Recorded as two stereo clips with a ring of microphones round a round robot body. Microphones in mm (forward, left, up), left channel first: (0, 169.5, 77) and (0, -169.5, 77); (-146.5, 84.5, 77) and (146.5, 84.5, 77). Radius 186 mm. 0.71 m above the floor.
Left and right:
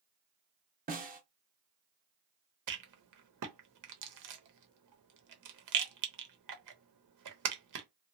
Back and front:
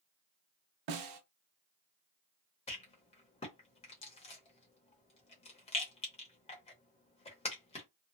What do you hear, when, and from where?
0.9 s a snare drum: 25° right, 0.7 m
2.7 s a rattle: 110° right, 0.9 m